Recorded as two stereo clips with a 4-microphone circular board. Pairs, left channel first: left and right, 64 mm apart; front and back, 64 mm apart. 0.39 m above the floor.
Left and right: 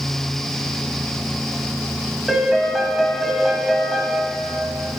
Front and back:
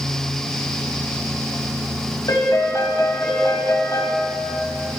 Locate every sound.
2.3 s a piano: 5° right, 1.1 m